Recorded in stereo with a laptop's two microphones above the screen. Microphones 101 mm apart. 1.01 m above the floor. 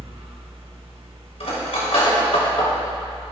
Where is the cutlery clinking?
90° left, 3 m.